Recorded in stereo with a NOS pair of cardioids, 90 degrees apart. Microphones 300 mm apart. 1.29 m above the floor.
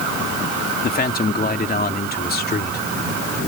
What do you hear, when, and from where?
0.8 s a man speaking: 30° left